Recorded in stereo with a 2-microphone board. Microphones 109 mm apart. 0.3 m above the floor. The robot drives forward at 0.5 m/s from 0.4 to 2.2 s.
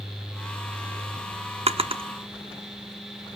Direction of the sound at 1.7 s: 70° right (ahead or behind).